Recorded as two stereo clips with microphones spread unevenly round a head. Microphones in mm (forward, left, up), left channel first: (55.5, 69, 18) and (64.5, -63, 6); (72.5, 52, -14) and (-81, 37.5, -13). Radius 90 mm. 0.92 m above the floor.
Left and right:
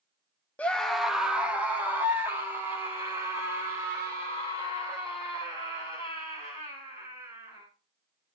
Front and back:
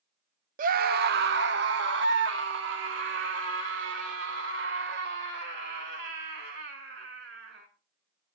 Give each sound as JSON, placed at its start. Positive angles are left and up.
{"t": 0.6, "sound": "a scream", "azimuth_deg": 175, "distance_m": 0.6}